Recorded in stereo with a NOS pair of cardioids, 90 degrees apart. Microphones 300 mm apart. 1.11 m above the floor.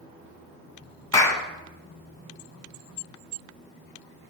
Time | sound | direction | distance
1.1 | a clap | 10° left | 1.0 m